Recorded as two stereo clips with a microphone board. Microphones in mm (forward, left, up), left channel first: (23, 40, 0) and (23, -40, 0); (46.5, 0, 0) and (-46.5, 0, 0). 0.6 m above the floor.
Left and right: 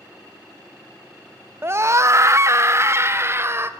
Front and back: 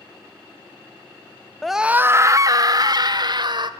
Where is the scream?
85° right, 0.6 m; by 3.7 s 150° right, 2.0 m.